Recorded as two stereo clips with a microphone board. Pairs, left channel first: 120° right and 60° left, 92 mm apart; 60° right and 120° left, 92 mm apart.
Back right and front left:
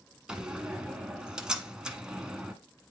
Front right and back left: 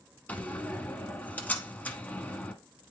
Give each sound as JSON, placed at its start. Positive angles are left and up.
{"t": 0.3, "sound": "a door slam", "azimuth_deg": -15, "distance_m": 1.0}